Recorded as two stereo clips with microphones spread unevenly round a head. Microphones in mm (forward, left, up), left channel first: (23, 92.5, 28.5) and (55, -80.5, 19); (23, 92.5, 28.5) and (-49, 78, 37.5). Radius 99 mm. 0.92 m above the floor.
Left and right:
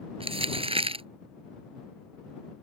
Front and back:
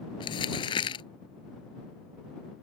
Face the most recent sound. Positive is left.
turn(degrees=-20)